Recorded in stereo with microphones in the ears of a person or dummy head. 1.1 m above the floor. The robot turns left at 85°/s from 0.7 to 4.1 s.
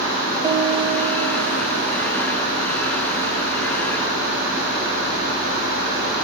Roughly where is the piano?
Ahead right.